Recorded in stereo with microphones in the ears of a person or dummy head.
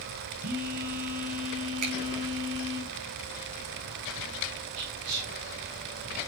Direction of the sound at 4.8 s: 75° right (ahead or behind).